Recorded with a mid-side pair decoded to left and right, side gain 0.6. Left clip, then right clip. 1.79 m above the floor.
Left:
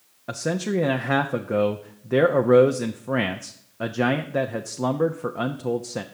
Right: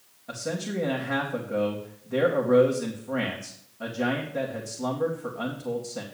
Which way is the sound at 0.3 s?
60° left.